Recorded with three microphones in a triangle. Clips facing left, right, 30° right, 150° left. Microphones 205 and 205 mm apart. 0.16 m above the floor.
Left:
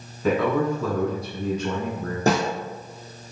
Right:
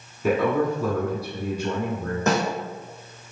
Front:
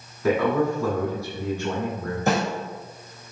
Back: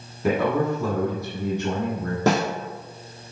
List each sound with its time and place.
0.2 s a man speaking: 160° right, 1.1 m
2.3 s a snare drum: 145° left, 1.6 m